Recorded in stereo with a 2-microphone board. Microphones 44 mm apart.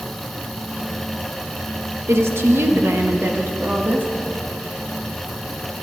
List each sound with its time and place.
2.1 s a woman speaking: 80° right, 1.4 m; by 4.1 s 45° right (ahead or behind), 2 m